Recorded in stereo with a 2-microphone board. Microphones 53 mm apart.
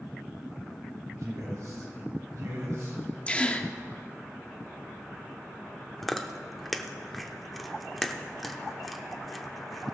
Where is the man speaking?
65° right (ahead or behind), 3 m.